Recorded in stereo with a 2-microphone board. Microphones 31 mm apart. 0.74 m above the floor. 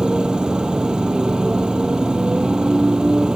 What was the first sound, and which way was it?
A motorcycle, 25° right (ahead or behind).